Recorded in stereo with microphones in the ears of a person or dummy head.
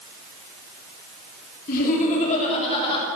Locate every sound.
1.7 s laughter: 50° left (ahead or behind), 3.5 m; by 3.0 s 25° left (ahead or behind), 3.5 m